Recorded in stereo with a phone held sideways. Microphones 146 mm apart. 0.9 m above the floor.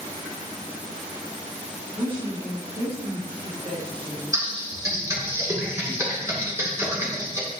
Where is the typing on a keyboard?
20° right (ahead or behind), 1.9 m.